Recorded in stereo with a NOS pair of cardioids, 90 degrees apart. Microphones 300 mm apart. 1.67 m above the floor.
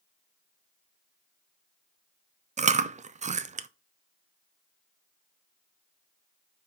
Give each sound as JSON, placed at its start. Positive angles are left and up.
{"t": 2.6, "sound": "chewing", "azimuth_deg": -25, "distance_m": 0.5}